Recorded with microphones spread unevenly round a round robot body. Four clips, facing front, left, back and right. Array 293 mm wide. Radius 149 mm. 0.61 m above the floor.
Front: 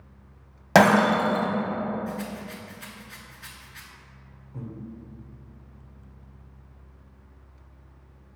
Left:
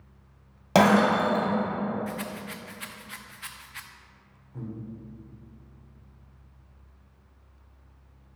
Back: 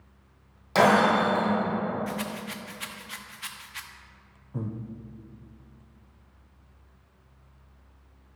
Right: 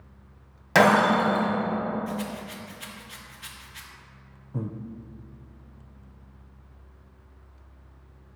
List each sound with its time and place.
0.8 s breaking glass: 25° left, 1.6 m
2.1 s a rattle: 140° left, 0.9 m
4.5 s breathing: 120° right, 0.5 m